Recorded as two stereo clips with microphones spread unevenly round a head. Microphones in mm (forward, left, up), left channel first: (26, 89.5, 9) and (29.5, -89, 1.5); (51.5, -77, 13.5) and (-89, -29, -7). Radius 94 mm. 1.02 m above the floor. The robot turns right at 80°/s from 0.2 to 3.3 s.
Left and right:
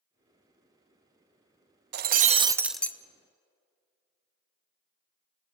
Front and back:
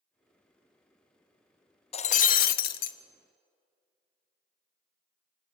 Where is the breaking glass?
65° right, 0.5 m; by 3.0 s 20° left, 0.5 m.